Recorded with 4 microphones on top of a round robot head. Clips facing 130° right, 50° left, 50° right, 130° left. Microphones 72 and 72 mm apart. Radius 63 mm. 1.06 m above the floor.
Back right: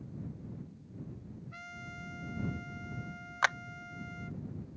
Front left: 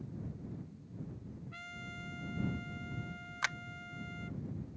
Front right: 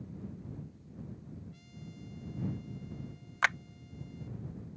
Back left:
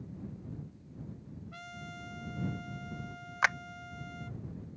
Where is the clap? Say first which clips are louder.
Back right 8 dB, back left 1 dB; 150° right.